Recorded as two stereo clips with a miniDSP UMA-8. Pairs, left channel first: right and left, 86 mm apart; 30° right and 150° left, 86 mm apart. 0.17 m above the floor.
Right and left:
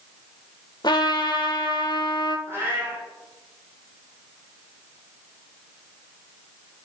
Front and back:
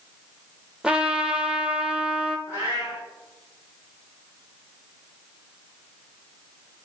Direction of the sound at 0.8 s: 130° right.